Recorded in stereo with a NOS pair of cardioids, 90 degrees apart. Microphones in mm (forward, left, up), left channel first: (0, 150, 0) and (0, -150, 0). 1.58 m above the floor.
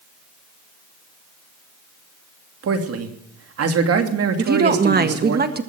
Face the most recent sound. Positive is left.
turn(degrees=-35)